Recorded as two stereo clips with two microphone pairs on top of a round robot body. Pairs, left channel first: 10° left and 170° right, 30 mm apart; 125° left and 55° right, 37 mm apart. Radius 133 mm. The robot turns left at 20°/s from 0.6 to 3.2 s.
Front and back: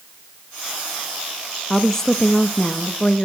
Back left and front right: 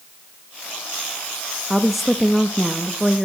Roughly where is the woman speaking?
Ahead left.